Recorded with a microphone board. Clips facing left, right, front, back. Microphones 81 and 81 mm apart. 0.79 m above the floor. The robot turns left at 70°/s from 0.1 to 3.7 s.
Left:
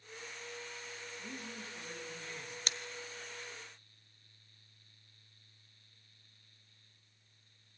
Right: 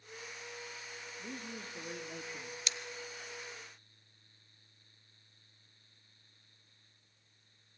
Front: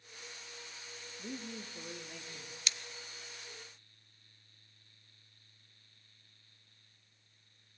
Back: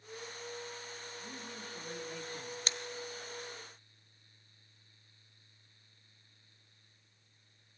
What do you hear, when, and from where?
1.2 s a man speaking: 20° right, 1.6 m; by 2.6 s 115° right, 1.6 m
2.7 s scissors: 130° left, 0.5 m; by 2.8 s 125° left, 0.5 m